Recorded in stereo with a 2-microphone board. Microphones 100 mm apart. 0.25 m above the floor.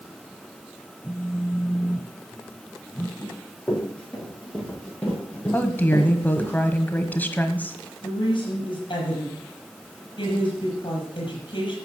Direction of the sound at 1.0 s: 5° left (ahead or behind).